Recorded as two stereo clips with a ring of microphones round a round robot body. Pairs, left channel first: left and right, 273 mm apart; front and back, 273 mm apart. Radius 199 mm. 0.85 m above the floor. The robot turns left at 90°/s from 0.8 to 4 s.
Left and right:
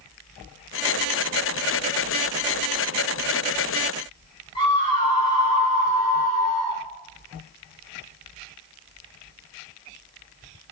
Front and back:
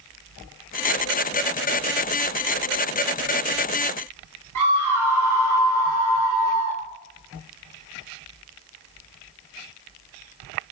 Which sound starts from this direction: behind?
A scream, at 4.5 s.